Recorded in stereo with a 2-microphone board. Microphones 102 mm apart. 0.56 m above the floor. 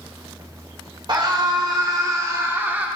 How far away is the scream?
About 2.5 m.